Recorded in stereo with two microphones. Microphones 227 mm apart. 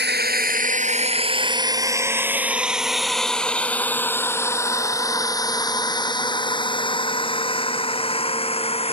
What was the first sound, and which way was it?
A drone, 50° right (ahead or behind).